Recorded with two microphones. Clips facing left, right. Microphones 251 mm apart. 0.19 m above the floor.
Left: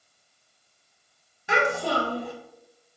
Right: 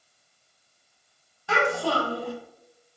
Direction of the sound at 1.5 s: 20° left (ahead or behind).